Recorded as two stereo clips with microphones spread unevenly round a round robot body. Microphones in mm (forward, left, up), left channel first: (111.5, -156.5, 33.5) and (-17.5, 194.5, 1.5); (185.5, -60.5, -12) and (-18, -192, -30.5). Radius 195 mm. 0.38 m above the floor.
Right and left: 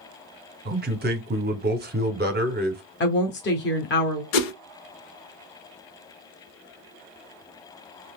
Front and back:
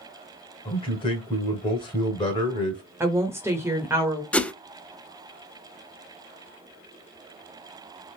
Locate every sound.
0.7 s a man speaking: 95° left, 0.8 m
3.0 s a woman speaking: 90° right, 0.9 m
4.3 s a whoosh: 55° right, 0.6 m